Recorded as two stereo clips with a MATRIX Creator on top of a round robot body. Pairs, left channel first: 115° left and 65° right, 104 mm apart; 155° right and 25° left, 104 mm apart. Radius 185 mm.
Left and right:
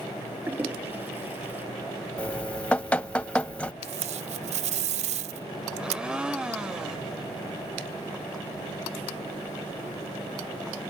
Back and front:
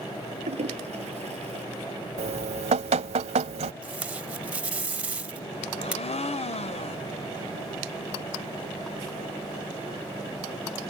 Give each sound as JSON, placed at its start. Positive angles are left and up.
{"t": 0.5, "sound": "a toilet flushing", "azimuth_deg": 5}
{"t": 2.2, "sound": "dripping", "azimuth_deg": 35}
{"t": 3.8, "sound": "tape being pulled", "azimuth_deg": -55}
{"t": 5.8, "sound": "a blender", "azimuth_deg": -150}